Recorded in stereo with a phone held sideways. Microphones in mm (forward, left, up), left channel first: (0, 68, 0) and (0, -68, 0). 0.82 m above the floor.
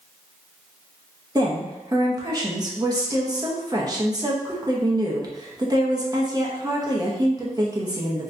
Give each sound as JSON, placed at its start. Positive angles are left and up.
{"t": 1.4, "sound": "a woman speaking", "side_deg": -30, "distance_m": 0.7}